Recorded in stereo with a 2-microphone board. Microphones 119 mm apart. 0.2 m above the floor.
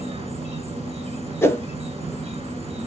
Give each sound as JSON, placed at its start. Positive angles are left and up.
{"t": 0.0, "sound": "an insect", "side_deg": -55, "distance_m": 1.3}
{"t": 1.4, "sound": "a whoosh", "side_deg": 25, "distance_m": 0.7}